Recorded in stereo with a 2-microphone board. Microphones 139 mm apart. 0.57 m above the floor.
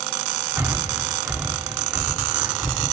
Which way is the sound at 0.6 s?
15° right (ahead or behind).